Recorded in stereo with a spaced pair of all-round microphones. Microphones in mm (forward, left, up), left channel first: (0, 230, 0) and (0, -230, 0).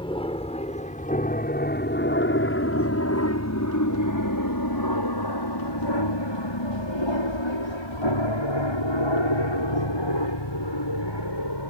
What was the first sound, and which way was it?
An aircraft, 10° left (ahead or behind).